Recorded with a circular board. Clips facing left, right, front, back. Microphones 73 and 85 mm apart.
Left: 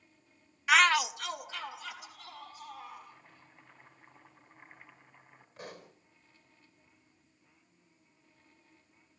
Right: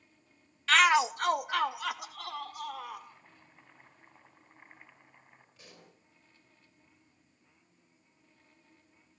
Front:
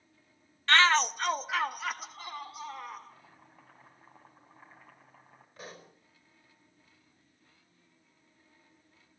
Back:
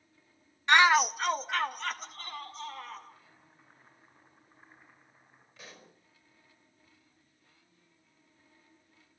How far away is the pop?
About 4.5 m.